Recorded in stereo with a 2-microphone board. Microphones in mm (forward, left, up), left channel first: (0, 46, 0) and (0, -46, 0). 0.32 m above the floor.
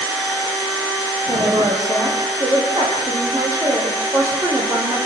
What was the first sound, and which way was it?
A woman speaking, 50° right (ahead or behind).